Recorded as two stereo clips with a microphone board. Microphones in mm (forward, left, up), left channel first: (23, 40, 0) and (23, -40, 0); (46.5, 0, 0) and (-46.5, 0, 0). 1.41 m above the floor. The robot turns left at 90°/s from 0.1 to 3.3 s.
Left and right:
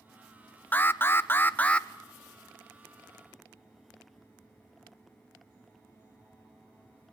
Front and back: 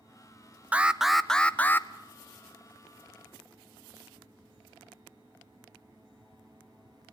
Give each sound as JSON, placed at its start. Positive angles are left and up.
{"t": 0.7, "sound": "an alarm", "azimuth_deg": 125, "distance_m": 0.6}